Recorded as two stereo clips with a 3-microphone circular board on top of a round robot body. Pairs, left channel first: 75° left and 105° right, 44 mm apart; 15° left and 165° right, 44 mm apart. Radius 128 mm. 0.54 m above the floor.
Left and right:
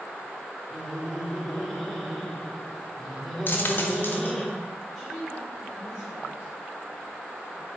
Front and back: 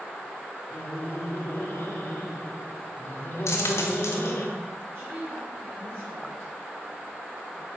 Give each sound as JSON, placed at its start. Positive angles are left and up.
{"t": 0.7, "sound": "laughter", "azimuth_deg": -15, "distance_m": 2.0}
{"t": 3.5, "sound": "a dropped coin", "azimuth_deg": 30, "distance_m": 0.9}
{"t": 4.9, "sound": "a woman speaking", "azimuth_deg": 155, "distance_m": 2.5}